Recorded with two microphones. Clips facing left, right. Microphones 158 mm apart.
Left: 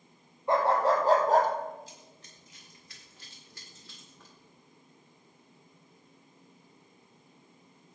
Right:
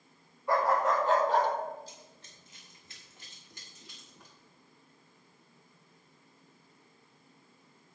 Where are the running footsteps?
30° right (ahead or behind), 6 m; by 4.3 s 10° right (ahead or behind), 6 m.